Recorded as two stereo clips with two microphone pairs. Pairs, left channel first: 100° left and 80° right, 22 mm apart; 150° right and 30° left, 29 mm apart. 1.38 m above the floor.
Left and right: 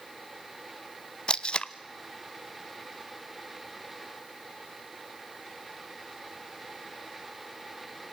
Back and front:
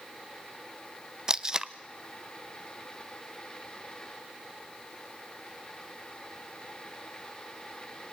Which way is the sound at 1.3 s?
85° left.